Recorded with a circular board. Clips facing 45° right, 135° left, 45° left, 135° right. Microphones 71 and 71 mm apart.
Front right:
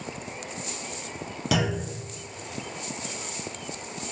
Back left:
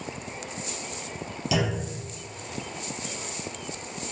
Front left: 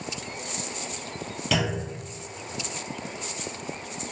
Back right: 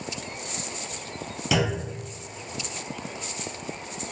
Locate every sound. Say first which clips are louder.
1.5 s a clunk: front right 1 dB, back right 2 dB; 50° right, 1.2 m